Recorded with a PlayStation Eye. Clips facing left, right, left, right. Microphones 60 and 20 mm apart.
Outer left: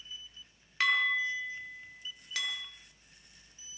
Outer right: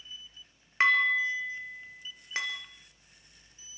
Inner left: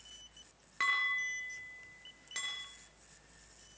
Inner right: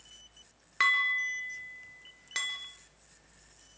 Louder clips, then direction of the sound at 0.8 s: Outer right 4 dB, inner right 6 dB; 35° right (ahead or behind).